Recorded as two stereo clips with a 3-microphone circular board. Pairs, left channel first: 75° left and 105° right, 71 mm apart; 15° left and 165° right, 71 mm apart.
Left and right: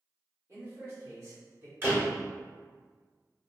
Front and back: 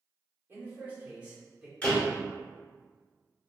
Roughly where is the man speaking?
Behind right.